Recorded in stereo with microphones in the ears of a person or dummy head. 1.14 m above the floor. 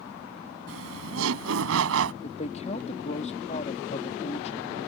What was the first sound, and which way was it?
Laughter, 75° right (ahead or behind).